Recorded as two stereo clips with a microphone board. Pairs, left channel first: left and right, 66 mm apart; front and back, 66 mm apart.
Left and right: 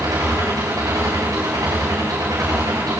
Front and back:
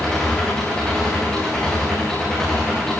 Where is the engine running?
80° right, 10 m.